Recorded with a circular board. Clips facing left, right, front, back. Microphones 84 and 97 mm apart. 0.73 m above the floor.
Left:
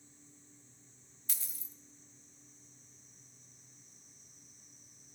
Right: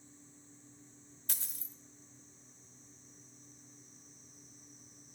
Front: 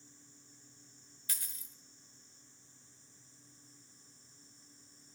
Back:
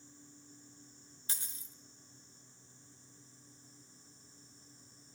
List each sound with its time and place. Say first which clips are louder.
1.3 s a dropped coin: right 2 dB, back 1 dB; 120° right, 1.2 m